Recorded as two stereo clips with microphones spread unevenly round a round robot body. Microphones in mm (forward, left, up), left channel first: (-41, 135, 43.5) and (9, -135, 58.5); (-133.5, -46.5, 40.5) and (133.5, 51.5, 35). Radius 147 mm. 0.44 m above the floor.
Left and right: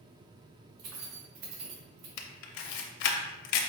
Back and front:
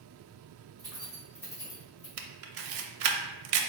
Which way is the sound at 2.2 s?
65° left.